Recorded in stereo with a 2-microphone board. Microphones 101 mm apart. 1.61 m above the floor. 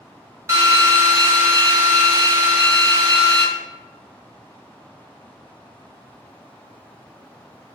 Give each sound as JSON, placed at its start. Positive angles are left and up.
{"t": 0.5, "sound": "a drill", "side_deg": -30, "distance_m": 0.8}